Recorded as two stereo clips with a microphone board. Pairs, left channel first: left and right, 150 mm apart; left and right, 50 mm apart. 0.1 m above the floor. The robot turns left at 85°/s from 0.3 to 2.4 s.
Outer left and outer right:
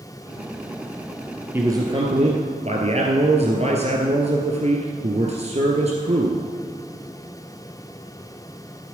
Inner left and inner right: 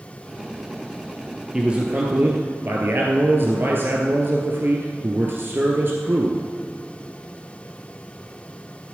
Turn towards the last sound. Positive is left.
turn(degrees=-90)